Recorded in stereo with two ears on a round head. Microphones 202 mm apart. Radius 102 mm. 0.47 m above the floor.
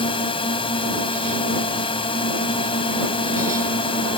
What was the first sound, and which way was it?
A drone, 25° left (ahead or behind).